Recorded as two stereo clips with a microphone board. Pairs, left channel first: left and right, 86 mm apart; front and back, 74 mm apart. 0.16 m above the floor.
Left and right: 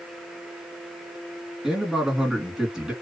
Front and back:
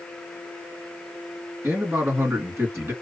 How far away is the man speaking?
About 1.9 m.